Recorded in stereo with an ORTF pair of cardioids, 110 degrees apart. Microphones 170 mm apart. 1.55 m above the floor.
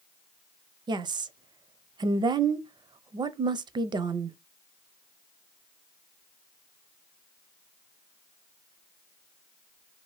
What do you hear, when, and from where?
0.9 s a woman speaking: 30° right, 0.5 m